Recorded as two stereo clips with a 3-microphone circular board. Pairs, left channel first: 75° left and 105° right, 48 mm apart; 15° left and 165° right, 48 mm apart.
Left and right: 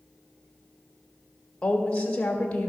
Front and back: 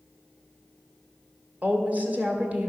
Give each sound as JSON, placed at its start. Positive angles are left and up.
{"t": 1.6, "sound": "a woman speaking", "azimuth_deg": 140, "distance_m": 1.8}